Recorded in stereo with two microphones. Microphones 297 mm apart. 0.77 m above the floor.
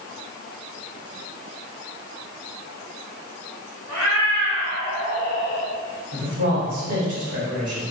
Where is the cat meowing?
65° right (ahead or behind), 1.8 m; by 5.7 s 20° left (ahead or behind), 2.5 m.